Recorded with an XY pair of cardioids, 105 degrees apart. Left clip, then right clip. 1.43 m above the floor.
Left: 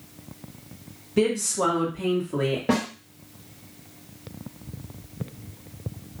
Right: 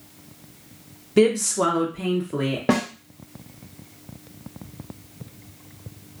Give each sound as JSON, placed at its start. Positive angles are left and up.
{"t": 1.2, "sound": "a woman speaking", "azimuth_deg": -45, "distance_m": 0.9}
{"t": 2.7, "sound": "a snare drum", "azimuth_deg": -40, "distance_m": 0.9}